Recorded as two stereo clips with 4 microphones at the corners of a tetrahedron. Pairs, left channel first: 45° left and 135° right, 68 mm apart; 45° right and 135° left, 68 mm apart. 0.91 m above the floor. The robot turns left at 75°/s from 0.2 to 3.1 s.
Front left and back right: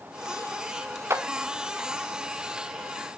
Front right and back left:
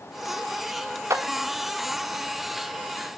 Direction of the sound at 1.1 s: 175° left.